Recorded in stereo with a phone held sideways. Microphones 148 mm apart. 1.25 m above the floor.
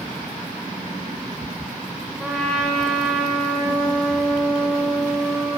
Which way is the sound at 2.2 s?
Centre (ahead or behind).